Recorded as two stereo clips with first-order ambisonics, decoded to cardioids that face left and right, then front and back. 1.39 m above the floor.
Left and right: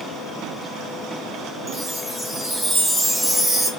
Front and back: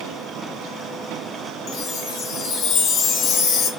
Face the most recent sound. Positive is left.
turn(degrees=-10)